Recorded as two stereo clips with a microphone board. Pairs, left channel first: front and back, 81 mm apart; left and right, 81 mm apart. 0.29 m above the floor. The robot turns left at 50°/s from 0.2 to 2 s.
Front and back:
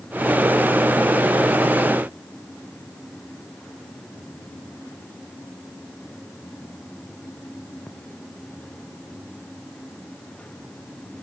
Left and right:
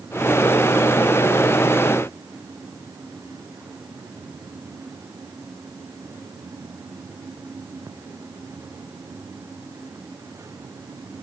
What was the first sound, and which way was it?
Only background noise.